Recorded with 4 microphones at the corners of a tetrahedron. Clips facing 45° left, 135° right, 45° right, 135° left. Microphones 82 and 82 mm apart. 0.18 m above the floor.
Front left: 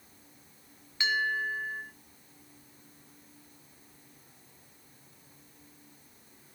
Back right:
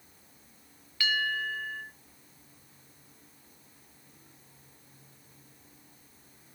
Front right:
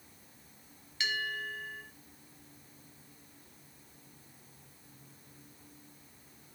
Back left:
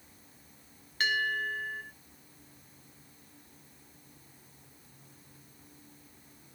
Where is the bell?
110° left, 1.9 m.